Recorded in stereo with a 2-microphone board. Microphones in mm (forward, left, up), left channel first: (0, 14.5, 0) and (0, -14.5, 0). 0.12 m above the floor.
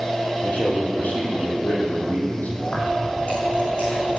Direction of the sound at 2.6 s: 50° left (ahead or behind).